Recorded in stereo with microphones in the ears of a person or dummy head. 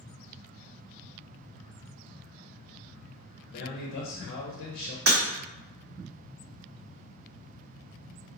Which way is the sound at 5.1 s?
50° right (ahead or behind).